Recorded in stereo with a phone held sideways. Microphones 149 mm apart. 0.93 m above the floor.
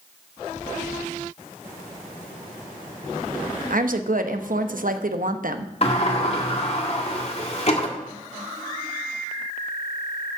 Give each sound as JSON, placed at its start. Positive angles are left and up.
{"t": 3.7, "sound": "a woman speaking", "side_deg": -65, "distance_m": 0.9}
{"t": 5.8, "sound": "a sliding door", "side_deg": 45, "distance_m": 1.8}